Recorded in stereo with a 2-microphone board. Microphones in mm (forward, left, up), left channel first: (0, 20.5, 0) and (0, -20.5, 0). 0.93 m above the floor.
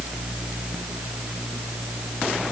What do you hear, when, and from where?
Only background noise.